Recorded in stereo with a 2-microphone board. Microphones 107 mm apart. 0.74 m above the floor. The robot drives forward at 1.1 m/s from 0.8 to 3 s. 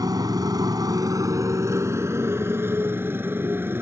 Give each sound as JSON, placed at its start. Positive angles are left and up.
{"t": 0.0, "sound": "a motorcycle", "side_deg": -35}